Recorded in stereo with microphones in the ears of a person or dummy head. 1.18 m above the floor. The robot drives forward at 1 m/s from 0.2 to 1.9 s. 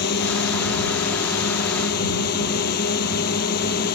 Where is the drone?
55° left (ahead or behind).